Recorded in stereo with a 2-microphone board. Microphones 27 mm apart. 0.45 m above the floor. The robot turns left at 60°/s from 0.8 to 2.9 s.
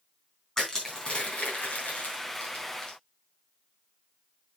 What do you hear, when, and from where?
0.6 s crushing: 25° left (ahead or behind), 3.5 m; by 3.0 s 30° left (ahead or behind), 3.5 m